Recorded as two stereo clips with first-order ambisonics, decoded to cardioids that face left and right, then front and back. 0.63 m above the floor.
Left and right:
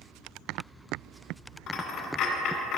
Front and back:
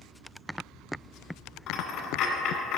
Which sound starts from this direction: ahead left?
A dropped coin, at 1.7 s.